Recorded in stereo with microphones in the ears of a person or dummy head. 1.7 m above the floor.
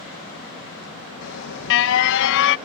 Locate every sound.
1.2 s an alarm: 70° left (ahead or behind)